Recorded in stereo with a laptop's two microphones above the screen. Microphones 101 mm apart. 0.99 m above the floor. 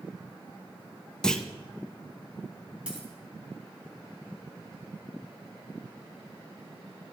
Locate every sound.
1.2 s a clunk: 5° left (ahead or behind), 0.6 m
2.9 s a dropped coin: 10° right (ahead or behind), 3 m